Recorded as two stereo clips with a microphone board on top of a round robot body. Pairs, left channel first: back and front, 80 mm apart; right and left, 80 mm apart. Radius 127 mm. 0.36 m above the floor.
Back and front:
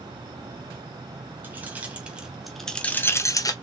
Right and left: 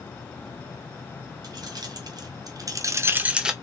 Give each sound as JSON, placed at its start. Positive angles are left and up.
{"t": 1.4, "sound": "keys jangling", "azimuth_deg": 65, "distance_m": 2.0}